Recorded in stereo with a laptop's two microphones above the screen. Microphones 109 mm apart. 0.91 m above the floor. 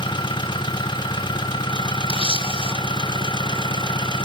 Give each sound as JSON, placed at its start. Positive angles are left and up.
{"t": 0.0, "sound": "an engine running", "side_deg": 45, "distance_m": 1.5}
{"t": 2.1, "sound": "a camera shutter", "side_deg": 55, "distance_m": 1.1}